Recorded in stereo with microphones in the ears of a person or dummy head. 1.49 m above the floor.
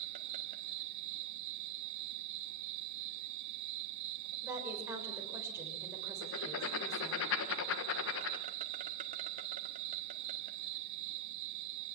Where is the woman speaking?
15° right (ahead or behind), 6 m.